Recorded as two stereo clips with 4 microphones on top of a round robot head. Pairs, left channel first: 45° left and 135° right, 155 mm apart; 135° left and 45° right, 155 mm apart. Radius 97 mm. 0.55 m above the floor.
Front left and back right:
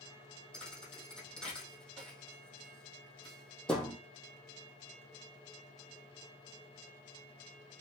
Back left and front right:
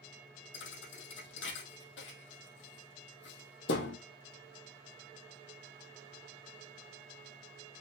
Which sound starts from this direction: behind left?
A thud, at 0.5 s.